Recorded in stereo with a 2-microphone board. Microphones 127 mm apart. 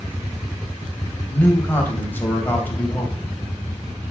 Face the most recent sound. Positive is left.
turn(degrees=15)  # may be behind; listen again after turning